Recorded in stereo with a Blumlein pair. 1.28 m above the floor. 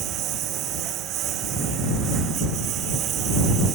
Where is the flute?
I don't hear a flute.